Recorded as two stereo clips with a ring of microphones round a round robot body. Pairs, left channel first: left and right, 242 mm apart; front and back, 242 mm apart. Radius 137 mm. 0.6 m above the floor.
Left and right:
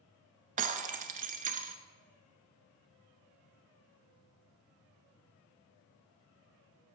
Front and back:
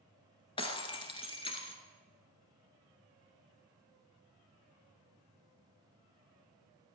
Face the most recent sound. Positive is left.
turn(degrees=-60)